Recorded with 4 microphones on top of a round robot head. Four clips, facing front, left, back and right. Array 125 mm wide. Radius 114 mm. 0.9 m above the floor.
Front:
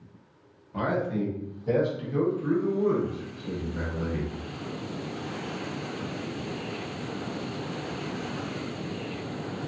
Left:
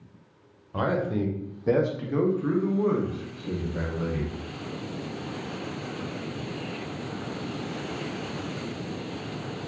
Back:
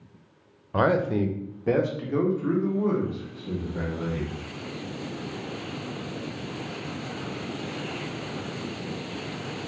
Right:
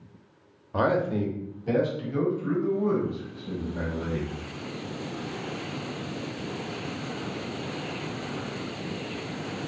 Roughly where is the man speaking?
Behind.